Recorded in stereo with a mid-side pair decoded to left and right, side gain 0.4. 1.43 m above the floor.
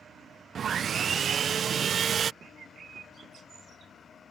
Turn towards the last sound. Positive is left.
turn(degrees=-55)